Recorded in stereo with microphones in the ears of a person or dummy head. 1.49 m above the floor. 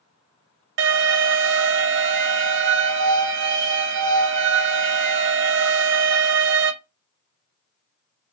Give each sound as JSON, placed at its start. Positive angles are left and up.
{"t": 0.8, "sound": "an alarm", "side_deg": -70, "distance_m": 0.5}